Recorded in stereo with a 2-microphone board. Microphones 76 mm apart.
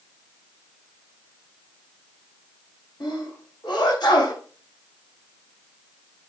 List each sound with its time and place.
3.0 s a sneeze: 70° left (ahead or behind), 6 m